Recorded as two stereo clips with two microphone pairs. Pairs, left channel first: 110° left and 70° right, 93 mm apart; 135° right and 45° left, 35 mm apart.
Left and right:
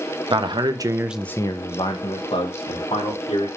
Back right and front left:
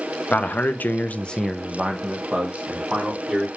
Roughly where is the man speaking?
Right.